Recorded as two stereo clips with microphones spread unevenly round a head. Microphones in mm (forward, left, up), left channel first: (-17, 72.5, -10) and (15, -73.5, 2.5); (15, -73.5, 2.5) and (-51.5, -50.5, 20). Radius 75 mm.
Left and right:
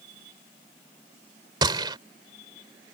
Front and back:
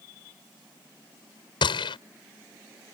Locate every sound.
1.6 s a gunshot: 15° right